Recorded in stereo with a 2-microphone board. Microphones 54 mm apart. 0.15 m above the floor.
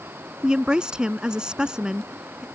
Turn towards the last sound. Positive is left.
turn(degrees=-15)  # may be behind; listen again after turning